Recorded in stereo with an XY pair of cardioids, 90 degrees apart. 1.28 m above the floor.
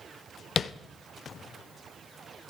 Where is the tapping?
50° left, 0.5 m.